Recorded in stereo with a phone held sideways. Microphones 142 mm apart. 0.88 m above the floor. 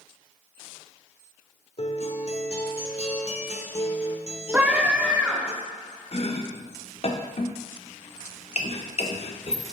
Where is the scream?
10° right (ahead or behind), 2.5 m.